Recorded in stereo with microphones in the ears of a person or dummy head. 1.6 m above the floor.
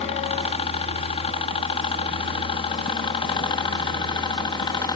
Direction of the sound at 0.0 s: 30° left (ahead or behind).